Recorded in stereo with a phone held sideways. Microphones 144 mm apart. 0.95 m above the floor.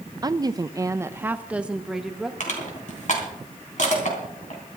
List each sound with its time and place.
0.2 s a woman speaking: 30° right (ahead or behind), 0.7 m; by 2.3 s centre (ahead or behind), 1.2 m
2.4 s crushing: 60° left (ahead or behind), 3.5 m